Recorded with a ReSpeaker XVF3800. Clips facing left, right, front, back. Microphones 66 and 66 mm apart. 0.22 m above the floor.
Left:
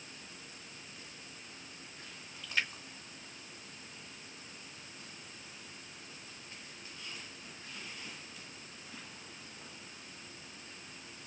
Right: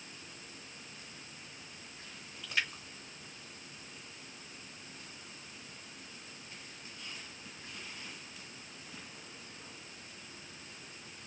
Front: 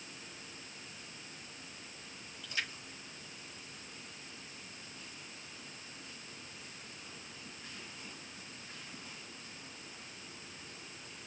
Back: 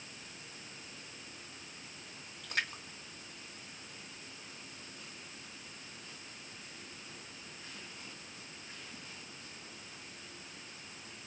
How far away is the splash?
About 2.5 m.